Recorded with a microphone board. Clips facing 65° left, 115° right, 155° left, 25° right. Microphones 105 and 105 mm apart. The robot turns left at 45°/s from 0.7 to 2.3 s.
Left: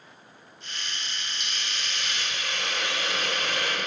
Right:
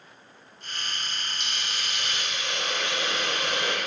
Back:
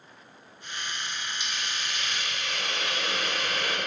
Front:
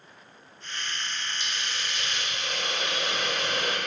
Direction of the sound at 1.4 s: 20° right.